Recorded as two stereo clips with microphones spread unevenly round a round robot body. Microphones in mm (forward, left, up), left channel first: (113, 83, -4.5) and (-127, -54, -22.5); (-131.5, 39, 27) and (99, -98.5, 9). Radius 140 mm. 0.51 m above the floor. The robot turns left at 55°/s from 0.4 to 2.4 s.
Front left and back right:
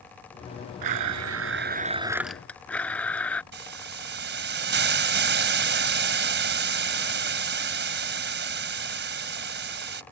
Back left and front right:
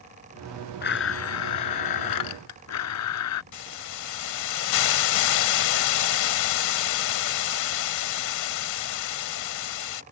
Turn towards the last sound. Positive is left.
turn(degrees=160)